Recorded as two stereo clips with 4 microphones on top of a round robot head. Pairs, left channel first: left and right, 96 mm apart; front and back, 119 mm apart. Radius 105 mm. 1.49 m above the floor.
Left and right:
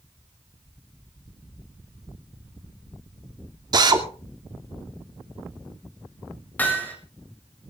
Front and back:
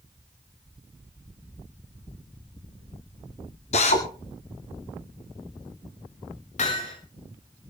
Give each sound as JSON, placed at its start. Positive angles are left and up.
{"t": 3.7, "sound": "a drill", "azimuth_deg": -45, "distance_m": 2.0}
{"t": 6.6, "sound": "hammering", "azimuth_deg": 20, "distance_m": 6.0}